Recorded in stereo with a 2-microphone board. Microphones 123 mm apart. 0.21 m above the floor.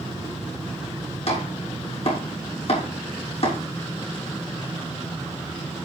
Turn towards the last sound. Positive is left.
turn(degrees=55)  # may be behind; listen again after turning